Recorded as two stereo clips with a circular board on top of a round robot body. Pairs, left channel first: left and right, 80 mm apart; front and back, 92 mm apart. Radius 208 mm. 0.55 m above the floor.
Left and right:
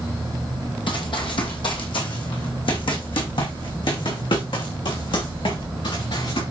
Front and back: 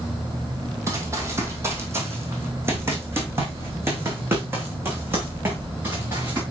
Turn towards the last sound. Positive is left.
turn(degrees=110)